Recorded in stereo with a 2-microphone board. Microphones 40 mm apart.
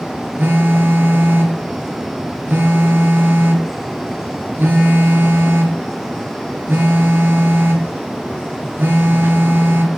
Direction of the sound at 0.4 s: 65° right (ahead or behind).